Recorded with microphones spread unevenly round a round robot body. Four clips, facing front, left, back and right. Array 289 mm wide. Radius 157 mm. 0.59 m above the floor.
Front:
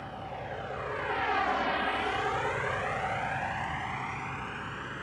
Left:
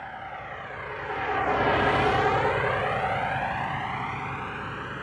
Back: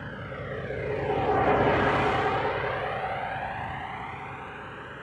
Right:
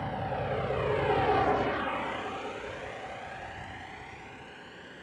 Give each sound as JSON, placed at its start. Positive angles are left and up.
{"t": 0.0, "sound": "a vehicle", "azimuth_deg": -125}